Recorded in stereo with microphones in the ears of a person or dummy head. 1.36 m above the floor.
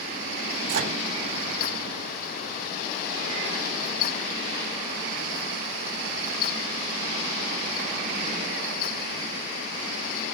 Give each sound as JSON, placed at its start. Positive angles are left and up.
{"t": 0.7, "sound": "a microwave", "side_deg": -65, "distance_m": 2.5}